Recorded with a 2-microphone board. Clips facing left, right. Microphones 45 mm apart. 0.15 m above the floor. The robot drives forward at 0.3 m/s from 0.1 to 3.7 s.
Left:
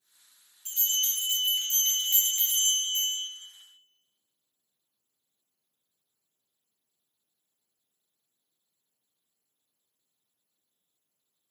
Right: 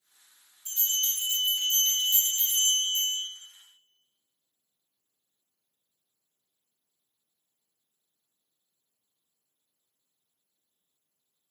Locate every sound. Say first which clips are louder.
0.7 s a bell: left 1 dB; 60° left (ahead or behind), 1.9 m; by 3.2 s 50° left (ahead or behind), 2 m